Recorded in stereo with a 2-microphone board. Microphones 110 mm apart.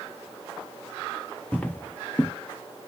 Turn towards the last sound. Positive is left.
turn(degrees=15)  # may be behind; listen again after turning